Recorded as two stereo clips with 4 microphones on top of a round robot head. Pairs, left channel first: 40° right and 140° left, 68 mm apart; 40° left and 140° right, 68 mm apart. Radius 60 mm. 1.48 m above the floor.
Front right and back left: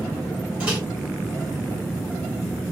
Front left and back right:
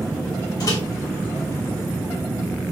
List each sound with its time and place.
0.6 s a microwave: 70° left, 2 m